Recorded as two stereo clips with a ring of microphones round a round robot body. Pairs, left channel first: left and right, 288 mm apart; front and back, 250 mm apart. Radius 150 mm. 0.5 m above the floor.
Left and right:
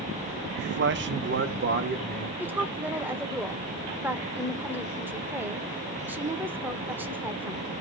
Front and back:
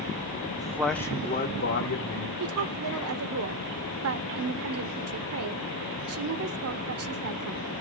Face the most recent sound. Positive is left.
turn(degrees=-175)